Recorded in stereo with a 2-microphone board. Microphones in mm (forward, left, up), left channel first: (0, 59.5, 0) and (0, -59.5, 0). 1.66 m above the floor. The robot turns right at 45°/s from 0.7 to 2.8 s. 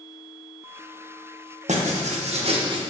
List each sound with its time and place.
1.7 s writing: 95° right, 1.4 m; by 2.8 s 45° right, 1.4 m